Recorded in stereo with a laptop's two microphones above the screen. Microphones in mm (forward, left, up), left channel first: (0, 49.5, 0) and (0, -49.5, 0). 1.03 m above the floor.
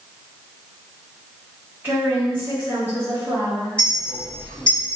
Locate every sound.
1.8 s a woman speaking: 20° right (ahead or behind), 1.9 m
3.8 s a clink: 10° left (ahead or behind), 1.6 m